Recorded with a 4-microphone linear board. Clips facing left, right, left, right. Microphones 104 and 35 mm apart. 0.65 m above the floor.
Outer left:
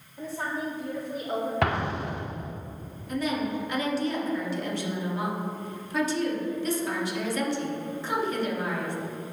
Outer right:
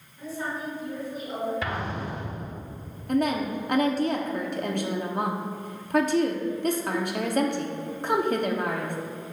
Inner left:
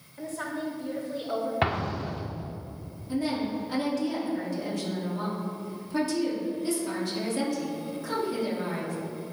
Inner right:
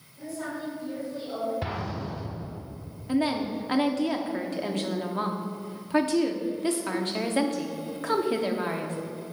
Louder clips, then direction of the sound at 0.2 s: Outer left 1 dB, inner left 1 dB; 70° left (ahead or behind).